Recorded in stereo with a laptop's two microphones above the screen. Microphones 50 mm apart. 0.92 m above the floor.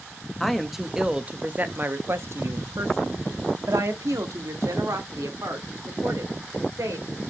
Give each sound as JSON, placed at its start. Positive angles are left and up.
{"t": 0.4, "sound": "a woman speaking", "side_deg": 5, "distance_m": 1.1}